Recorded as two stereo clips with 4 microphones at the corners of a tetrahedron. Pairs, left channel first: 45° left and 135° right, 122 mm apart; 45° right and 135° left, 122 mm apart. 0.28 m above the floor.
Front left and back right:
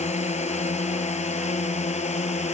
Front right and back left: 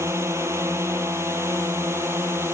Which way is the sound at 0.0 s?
65° left.